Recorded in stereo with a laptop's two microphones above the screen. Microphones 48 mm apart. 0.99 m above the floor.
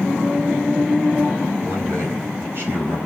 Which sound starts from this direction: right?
A man speaking, at 1.6 s.